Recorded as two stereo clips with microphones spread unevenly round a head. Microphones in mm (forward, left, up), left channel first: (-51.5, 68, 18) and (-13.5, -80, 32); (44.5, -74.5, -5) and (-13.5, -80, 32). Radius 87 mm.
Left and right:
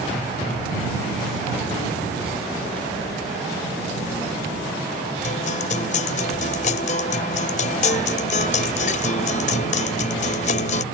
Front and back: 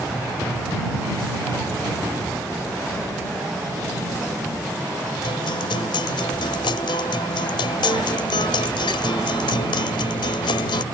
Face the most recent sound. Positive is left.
turn(degrees=50)